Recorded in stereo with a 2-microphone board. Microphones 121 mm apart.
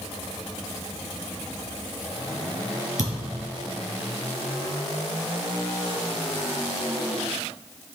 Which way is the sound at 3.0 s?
80° right.